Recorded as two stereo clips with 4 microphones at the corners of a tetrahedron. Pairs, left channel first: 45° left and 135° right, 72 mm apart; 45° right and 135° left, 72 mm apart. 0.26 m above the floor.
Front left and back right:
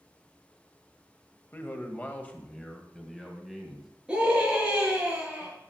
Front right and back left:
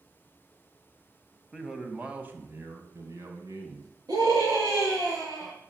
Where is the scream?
150° left, 5.5 m.